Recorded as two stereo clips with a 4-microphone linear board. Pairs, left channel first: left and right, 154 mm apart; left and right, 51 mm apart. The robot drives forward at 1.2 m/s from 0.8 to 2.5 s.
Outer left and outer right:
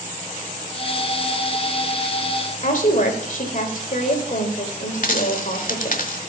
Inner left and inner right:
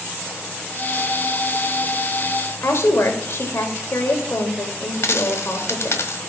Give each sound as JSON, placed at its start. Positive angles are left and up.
{"t": 2.6, "sound": "a woman speaking", "side_deg": 65, "distance_m": 2.5}
{"t": 5.0, "sound": "a dropped coin", "side_deg": 65, "distance_m": 1.3}